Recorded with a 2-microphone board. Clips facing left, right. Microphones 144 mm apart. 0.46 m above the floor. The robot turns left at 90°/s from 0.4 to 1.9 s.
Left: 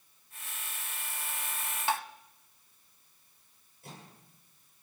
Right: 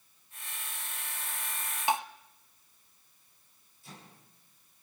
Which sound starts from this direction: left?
A microwave, at 3.8 s.